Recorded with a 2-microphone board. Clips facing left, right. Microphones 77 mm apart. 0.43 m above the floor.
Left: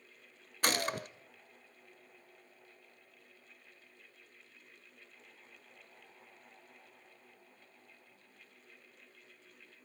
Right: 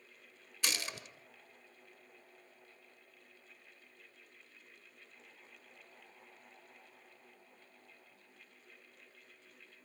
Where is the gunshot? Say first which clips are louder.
Left 8 dB; 45° left (ahead or behind), 0.6 m.